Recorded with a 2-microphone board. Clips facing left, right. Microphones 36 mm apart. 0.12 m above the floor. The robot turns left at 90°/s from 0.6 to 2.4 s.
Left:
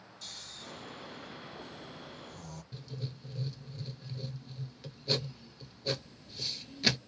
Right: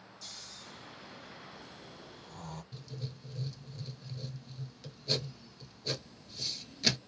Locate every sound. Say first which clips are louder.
0.2 s snoring: left 3 dB; 60° left (ahead or behind), 1.0 m; by 2.6 s 45° right (ahead or behind), 1.0 m
2.7 s writing: left 2 dB; 15° left (ahead or behind), 0.5 m